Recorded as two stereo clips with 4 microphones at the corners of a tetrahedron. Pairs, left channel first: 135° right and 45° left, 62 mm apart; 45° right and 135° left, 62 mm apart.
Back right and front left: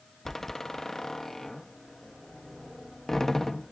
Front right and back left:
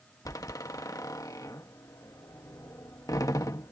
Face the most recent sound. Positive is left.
turn(degrees=-55)